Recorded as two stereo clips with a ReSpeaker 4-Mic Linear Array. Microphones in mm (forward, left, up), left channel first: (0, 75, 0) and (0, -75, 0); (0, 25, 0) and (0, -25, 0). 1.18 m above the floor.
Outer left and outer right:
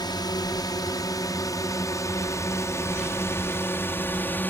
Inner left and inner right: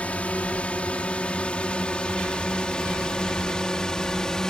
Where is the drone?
30° left (ahead or behind); by 4.5 s 15° left (ahead or behind).